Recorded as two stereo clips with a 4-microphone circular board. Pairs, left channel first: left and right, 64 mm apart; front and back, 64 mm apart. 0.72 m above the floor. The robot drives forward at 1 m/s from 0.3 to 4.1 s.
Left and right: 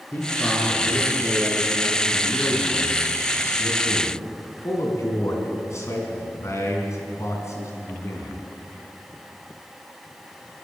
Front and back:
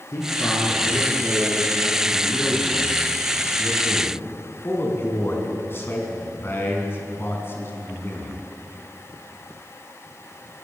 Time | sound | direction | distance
0.1 | a man speaking | 30° left | 8.5 m